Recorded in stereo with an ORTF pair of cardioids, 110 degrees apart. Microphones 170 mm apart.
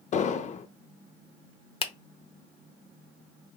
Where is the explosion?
45° left, 0.5 m.